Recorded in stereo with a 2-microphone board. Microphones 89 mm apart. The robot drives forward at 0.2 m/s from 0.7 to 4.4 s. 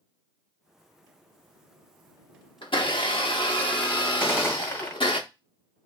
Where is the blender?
70° left (ahead or behind), 0.8 m.